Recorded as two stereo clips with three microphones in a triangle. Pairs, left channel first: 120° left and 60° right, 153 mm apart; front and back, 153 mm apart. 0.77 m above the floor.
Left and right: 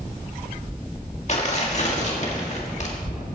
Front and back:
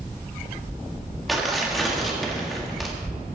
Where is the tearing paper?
90° left, 1.8 m.